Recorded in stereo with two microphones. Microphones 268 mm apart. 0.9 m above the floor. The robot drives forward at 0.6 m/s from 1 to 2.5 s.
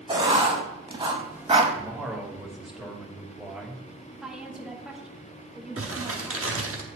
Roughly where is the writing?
Centre.